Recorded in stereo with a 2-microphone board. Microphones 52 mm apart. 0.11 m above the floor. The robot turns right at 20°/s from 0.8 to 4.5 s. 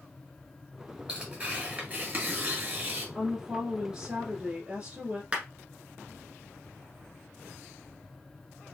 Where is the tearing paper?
150° right, 1.9 m; by 3.0 s 110° right, 1.9 m.